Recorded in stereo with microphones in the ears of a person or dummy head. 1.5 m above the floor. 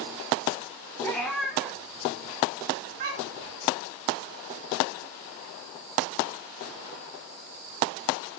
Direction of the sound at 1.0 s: 20° left (ahead or behind).